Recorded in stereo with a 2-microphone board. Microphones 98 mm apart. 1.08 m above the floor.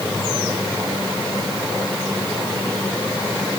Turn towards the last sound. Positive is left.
No sound to turn to.